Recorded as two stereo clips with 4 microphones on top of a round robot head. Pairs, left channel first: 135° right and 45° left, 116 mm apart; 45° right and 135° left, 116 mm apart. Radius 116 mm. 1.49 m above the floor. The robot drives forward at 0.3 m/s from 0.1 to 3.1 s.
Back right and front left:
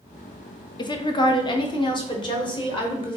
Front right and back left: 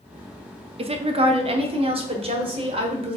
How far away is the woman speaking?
About 0.6 m.